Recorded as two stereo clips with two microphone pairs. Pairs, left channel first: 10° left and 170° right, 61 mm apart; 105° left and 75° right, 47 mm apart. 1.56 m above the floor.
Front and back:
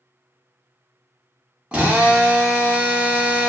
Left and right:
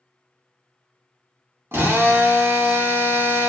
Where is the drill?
100° right, 2 m.